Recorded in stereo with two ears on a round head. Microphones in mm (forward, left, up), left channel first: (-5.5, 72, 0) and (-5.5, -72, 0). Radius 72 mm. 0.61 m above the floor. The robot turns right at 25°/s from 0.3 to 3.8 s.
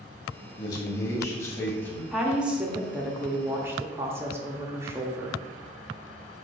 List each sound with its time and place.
0.6 s a man speaking: 125° left, 1.0 m; by 2.0 s 160° left, 1.0 m
2.1 s a woman speaking: 5° right (ahead or behind), 0.5 m; by 5.4 s 15° right (ahead or behind), 0.5 m